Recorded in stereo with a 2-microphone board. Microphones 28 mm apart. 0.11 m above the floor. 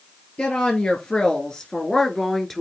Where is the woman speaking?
45° left (ahead or behind), 1.6 m; by 2.6 s 10° left (ahead or behind), 1.3 m.